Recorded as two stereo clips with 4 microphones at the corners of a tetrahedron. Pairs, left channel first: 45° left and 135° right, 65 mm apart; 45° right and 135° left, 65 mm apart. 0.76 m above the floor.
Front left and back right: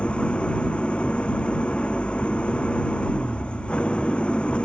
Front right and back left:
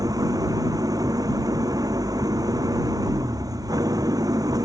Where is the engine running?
120° left.